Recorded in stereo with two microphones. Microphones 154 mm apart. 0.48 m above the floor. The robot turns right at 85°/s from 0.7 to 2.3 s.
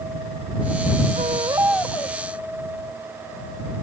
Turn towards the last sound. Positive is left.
turn(degrees=45)